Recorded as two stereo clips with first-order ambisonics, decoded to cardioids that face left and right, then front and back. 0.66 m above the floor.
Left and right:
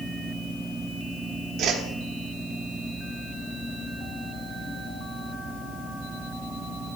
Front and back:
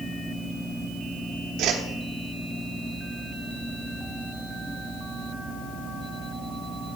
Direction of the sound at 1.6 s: 135° right.